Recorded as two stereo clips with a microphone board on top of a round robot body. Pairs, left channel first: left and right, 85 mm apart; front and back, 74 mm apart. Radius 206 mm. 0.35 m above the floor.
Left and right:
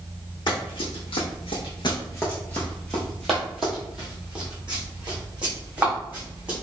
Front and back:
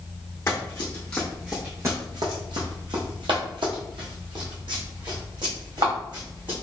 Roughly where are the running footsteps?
Ahead left.